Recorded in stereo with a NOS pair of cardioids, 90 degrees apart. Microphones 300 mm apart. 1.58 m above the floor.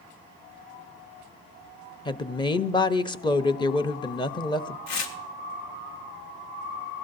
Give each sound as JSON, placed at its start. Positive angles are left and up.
{"t": 2.0, "sound": "a woman speaking", "azimuth_deg": 15, "distance_m": 0.7}
{"t": 4.9, "sound": "tearing paper", "azimuth_deg": 65, "distance_m": 1.4}